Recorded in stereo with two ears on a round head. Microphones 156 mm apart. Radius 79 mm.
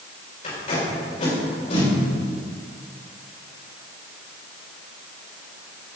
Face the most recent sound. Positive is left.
turn(degrees=45)  # may be behind; listen again after turning